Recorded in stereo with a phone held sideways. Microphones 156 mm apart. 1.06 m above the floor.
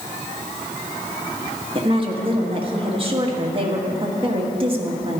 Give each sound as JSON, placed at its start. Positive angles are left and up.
{"t": 1.8, "sound": "a woman speaking", "side_deg": -35, "distance_m": 1.8}